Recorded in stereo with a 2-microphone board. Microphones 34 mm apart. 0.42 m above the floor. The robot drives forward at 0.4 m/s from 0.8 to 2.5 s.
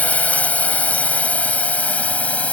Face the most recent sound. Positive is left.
turn(degrees=40)  # may be behind; listen again after turning